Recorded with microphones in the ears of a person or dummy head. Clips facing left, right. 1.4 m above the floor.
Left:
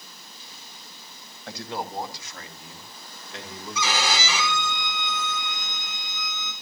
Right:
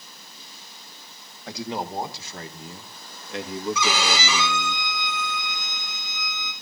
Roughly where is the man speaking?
Centre.